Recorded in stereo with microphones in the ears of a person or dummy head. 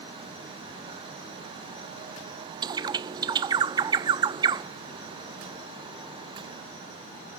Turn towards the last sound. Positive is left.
turn(degrees=-20)  # may be behind; listen again after turning